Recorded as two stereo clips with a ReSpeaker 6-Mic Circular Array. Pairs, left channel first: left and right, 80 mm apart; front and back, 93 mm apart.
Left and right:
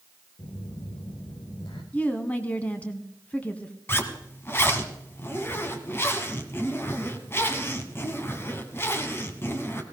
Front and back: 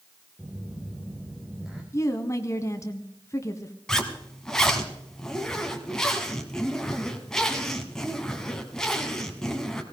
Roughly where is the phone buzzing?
Left.